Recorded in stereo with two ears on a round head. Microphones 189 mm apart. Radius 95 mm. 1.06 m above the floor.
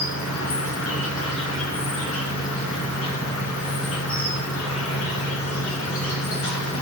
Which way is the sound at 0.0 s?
70° left (ahead or behind).